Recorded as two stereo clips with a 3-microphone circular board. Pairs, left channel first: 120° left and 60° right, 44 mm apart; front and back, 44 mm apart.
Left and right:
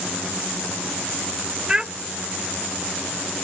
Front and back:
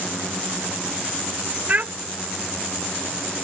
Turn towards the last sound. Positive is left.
turn(degrees=-130)